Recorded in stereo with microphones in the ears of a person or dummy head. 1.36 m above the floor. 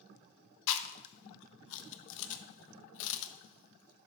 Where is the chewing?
70° left (ahead or behind), 0.6 m.